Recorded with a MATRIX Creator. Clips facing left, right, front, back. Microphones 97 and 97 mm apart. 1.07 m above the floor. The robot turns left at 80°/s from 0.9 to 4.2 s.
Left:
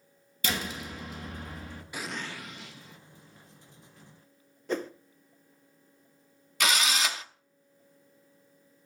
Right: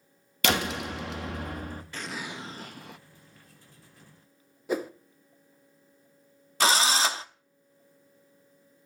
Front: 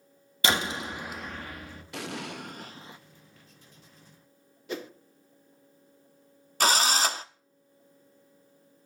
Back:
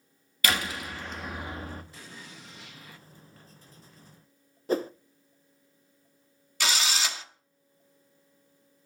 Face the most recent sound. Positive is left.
turn(degrees=-35)